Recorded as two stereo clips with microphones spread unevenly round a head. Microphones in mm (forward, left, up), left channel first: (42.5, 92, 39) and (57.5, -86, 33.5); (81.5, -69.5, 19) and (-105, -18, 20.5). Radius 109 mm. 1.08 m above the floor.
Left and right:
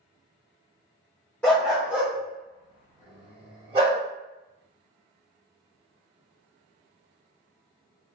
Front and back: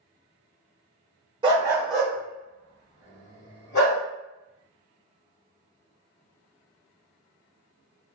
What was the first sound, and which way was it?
A dog barking, 165° left.